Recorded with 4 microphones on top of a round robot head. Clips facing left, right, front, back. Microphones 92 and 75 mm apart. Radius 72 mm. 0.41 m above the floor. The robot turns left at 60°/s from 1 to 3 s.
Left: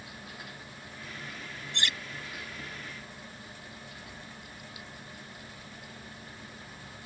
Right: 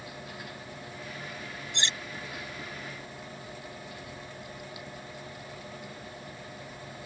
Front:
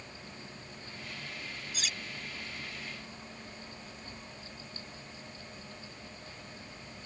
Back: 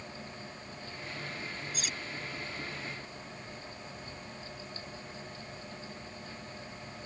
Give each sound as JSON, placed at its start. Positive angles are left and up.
{"t": 1.7, "sound": "cutlery clinking", "azimuth_deg": -20}